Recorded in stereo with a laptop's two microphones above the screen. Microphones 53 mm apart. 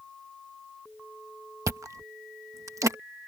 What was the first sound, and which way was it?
Chewing, 70° right (ahead or behind).